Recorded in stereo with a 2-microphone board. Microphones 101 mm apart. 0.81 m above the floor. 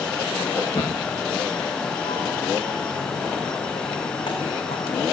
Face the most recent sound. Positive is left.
turn(degrees=70)  # may be behind; listen again after turning